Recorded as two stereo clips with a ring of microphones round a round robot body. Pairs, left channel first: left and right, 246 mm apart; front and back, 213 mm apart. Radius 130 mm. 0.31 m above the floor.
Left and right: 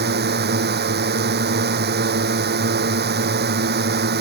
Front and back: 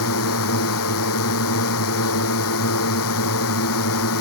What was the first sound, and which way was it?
A drone, 35° right.